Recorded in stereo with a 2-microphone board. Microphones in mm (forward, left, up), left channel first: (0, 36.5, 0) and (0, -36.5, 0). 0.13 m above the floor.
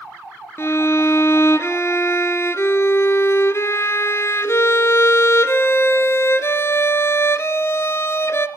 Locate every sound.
0.6 s a violin: 35° left (ahead or behind), 1.0 m